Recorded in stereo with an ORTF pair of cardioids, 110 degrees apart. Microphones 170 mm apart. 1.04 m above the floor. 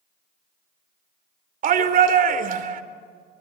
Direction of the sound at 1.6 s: 55° right.